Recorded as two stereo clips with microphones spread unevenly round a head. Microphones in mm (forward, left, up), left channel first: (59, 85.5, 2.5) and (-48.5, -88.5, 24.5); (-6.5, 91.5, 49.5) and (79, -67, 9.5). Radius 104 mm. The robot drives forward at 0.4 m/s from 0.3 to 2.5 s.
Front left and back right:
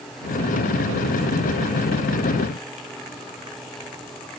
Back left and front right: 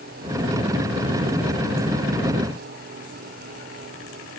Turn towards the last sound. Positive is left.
No sound to turn to.